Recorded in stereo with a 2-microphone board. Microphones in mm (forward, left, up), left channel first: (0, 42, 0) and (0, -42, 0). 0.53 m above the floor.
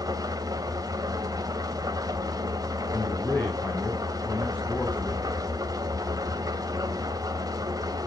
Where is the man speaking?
20° left (ahead or behind), 3.5 m.